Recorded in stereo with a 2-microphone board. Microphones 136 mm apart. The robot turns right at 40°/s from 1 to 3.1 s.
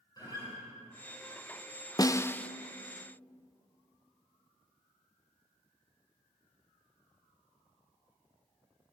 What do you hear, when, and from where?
0.2 s a guitar: 30° left (ahead or behind), 9.5 m
2.0 s a snare drum: 30° left (ahead or behind), 0.5 m; by 2.5 s 10° left (ahead or behind), 0.5 m